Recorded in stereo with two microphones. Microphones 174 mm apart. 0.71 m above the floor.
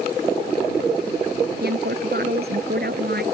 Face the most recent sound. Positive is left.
turn(degrees=-65)  # may be behind; listen again after turning